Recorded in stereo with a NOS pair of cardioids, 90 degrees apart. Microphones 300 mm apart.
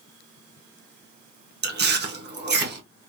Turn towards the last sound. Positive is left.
turn(degrees=-35)